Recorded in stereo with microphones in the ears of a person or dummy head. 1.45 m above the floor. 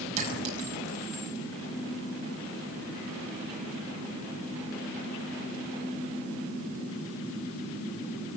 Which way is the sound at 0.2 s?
40° right (ahead or behind).